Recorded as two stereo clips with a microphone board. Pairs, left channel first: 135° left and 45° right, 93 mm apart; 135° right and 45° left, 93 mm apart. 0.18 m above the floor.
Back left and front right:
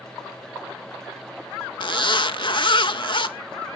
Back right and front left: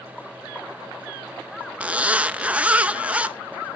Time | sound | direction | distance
1.8 | a zipper | 120° left | 0.5 m